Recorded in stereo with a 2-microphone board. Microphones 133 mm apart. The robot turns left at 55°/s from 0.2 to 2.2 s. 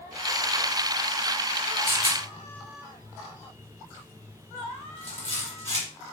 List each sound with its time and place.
1.9 s a rattle: 20° right (ahead or behind), 1.7 m; by 5.9 s 30° right (ahead or behind), 1.7 m